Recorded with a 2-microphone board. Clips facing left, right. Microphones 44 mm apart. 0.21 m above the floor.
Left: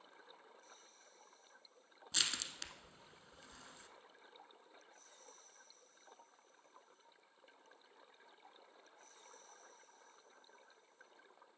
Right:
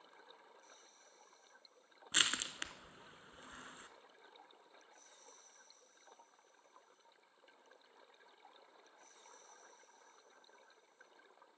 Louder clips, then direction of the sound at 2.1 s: Right 5 dB; 45° right (ahead or behind).